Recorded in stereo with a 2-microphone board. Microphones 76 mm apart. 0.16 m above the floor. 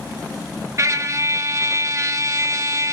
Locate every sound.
0.8 s a trumpet: 40° right (ahead or behind), 0.7 m